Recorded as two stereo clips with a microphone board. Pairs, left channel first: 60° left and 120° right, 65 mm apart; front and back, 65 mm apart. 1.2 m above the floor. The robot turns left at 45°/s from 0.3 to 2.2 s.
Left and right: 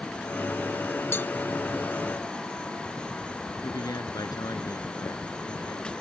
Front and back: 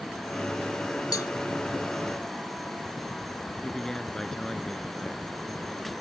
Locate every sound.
1.1 s a cowbell: 10° left; by 1.3 s straight ahead
3.6 s a man speaking: 80° left